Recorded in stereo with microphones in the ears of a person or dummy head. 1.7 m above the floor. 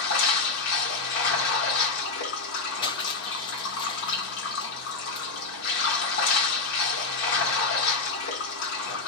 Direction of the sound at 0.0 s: 75° left (ahead or behind).